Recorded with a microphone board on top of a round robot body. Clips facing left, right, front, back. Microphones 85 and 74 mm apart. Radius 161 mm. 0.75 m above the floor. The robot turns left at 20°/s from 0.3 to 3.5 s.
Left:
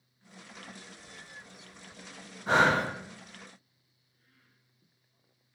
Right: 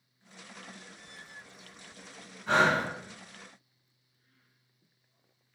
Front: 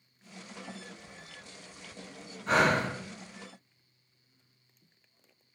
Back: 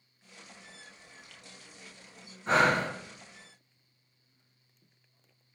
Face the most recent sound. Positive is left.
turn(degrees=100)